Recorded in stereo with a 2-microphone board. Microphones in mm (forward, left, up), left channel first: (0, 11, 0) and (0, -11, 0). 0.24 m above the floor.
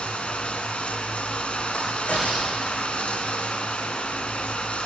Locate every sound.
0.0 s running water: 65° left (ahead or behind), 2 m
1.7 s a crack: 80° left, 8.5 m